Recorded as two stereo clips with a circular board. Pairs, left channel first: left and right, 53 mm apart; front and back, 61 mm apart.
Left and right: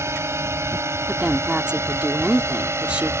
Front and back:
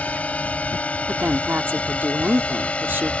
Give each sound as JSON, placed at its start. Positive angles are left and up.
{"t": 0.0, "sound": "a drone", "azimuth_deg": -65}
{"t": 1.1, "sound": "a woman speaking", "azimuth_deg": -145}